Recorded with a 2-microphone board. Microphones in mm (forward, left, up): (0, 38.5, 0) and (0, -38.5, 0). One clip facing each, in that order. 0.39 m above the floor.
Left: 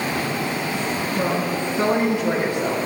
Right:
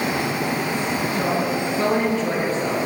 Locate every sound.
1.1 s a woman speaking: 10° left (ahead or behind), 5 m; by 2.9 s 15° left (ahead or behind), 2.5 m